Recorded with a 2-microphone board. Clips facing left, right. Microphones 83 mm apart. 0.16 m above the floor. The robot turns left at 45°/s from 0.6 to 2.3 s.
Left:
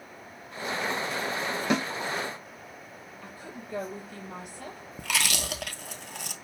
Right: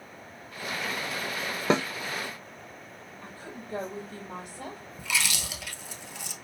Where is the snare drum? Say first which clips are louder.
Right 3 dB; 35° right (ahead or behind), 1.6 m; by 1.9 s 40° right (ahead or behind), 1.6 m.